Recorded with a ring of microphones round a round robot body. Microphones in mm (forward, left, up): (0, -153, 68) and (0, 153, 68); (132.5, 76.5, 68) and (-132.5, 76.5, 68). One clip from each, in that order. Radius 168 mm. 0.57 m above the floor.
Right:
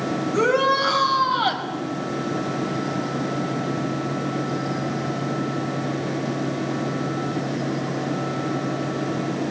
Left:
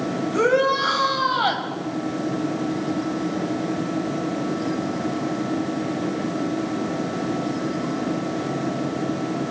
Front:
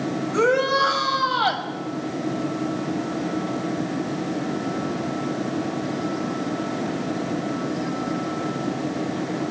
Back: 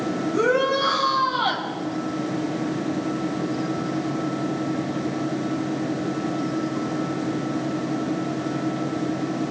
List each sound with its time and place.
0.3 s a shout: straight ahead, 5 m